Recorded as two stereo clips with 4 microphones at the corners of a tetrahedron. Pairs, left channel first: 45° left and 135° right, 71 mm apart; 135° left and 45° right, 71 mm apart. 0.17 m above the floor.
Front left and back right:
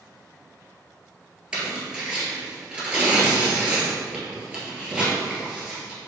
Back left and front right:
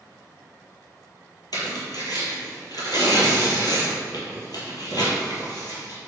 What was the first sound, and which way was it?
Tearing paper, 150° left.